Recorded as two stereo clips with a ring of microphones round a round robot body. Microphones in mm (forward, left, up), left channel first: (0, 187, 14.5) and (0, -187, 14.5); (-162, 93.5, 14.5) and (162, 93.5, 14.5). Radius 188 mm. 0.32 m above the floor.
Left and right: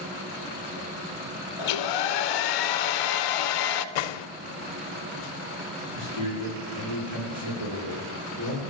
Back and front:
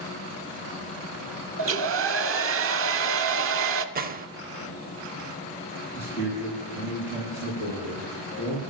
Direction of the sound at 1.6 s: 55° left.